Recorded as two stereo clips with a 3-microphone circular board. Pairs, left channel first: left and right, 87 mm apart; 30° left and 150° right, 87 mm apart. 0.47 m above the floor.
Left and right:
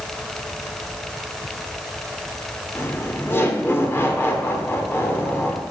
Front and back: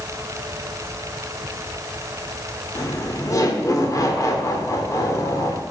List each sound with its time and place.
2.8 s laughter: 45° left, 1.2 m